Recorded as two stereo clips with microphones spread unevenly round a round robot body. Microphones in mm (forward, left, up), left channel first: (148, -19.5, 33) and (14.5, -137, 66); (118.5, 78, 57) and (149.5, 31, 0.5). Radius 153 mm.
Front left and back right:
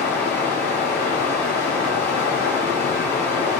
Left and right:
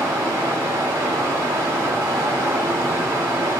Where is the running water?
40° right, 3 m.